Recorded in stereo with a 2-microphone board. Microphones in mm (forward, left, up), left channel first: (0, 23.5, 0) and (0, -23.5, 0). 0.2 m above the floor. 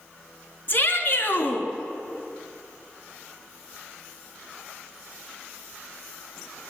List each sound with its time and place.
0.7 s a shout: 40° left (ahead or behind), 2.5 m